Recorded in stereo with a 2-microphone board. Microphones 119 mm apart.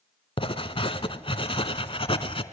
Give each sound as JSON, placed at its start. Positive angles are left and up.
{"t": 0.4, "sound": "writing", "side_deg": 50, "distance_m": 1.1}